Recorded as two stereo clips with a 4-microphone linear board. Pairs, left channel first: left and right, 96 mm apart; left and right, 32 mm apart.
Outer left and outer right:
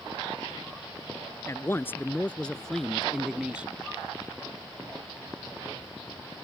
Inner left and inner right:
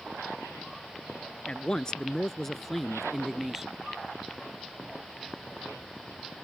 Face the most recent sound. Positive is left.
turn(degrees=-15)  # may be behind; listen again after turning